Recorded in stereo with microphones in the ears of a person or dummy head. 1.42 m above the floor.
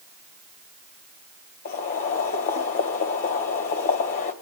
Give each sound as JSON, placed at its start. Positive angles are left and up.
{"t": 1.6, "sound": "boiling", "side_deg": 40, "distance_m": 1.8}